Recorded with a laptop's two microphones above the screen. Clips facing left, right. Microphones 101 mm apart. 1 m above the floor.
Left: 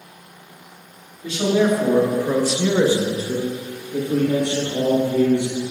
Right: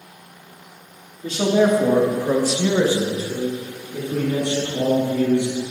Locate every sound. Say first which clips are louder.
1.2 s a man speaking: right 1 dB; 35° right (ahead or behind), 2 m; by 5.7 s 65° left (ahead or behind), 3 m